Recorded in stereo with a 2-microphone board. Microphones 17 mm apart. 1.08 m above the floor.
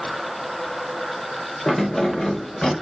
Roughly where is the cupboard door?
No cupboard door in this recording.